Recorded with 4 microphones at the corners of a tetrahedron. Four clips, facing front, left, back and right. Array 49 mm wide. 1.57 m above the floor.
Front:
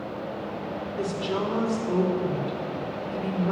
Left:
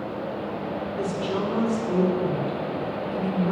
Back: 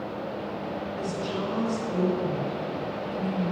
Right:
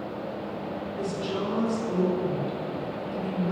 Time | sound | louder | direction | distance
1.0 | a woman speaking | left 3 dB, front 5 dB | 25° left | 4.5 m